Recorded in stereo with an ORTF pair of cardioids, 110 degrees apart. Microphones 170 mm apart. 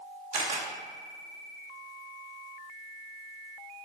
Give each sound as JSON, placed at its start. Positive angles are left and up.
{"t": 0.3, "sound": "a camera shutter", "azimuth_deg": -40, "distance_m": 2.0}